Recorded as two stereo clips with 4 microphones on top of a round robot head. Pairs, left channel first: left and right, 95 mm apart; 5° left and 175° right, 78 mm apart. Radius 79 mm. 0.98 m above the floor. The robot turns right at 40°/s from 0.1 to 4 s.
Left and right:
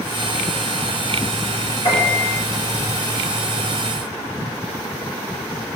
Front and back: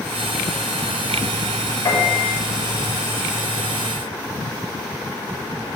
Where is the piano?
55° left, 5.5 m; by 2.4 s 75° left, 5.5 m.